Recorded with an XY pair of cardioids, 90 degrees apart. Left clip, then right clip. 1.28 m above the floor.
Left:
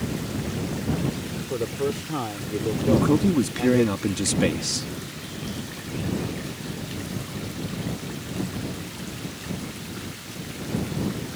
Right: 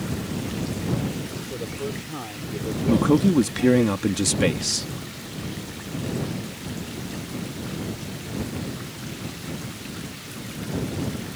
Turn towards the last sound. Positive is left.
turn(degrees=-20)